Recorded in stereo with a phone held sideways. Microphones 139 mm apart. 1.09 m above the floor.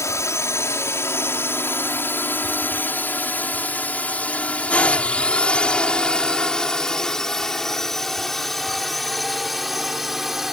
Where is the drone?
20° left (ahead or behind); by 10.5 s centre (ahead or behind).